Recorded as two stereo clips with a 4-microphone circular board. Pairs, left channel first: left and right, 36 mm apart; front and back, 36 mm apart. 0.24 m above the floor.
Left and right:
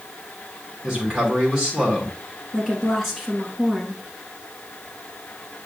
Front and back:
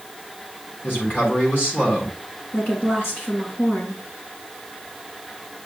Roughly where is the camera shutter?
No camera shutter in this recording.